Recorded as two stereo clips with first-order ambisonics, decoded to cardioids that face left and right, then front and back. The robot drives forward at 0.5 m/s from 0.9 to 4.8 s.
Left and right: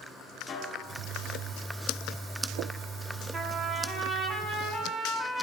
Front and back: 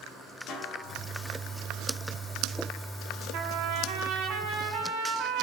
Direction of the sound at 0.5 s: 45° left.